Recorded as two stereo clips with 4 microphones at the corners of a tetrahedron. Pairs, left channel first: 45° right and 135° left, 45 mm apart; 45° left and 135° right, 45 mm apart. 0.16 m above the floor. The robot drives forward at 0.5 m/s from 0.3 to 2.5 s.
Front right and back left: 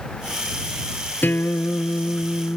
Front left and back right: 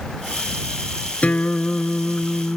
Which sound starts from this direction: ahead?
A guitar, at 1.2 s.